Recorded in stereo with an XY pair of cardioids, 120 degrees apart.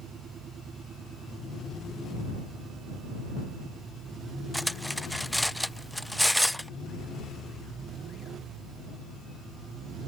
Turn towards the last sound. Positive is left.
turn(degrees=0)